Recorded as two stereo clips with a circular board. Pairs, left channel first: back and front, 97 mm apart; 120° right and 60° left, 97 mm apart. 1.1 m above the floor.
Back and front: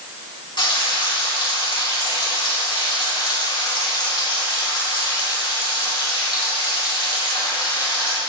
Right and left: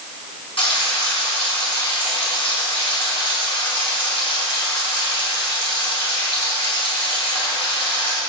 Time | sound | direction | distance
0.6 | frying | 140° right | 4 m